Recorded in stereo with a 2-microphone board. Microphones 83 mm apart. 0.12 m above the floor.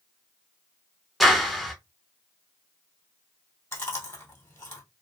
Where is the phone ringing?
I don't hear a phone ringing.